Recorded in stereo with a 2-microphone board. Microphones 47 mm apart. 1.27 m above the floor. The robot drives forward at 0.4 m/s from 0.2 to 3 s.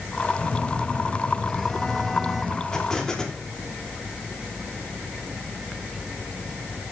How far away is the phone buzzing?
About 1.9 m.